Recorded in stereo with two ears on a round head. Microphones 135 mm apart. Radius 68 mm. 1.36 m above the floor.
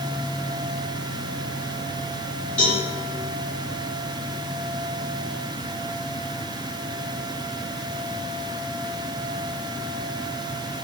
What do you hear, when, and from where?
2.6 s a cowbell: 10° left (ahead or behind), 1.7 m